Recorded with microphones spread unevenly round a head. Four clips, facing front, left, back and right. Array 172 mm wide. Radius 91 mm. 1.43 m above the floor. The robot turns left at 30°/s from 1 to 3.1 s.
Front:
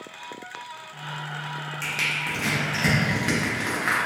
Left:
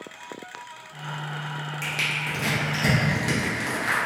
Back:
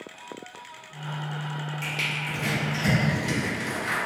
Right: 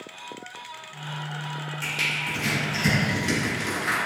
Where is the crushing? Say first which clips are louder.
Even, front 2 dB; 45° left, 0.7 m; by 4.0 s 10° left, 0.7 m.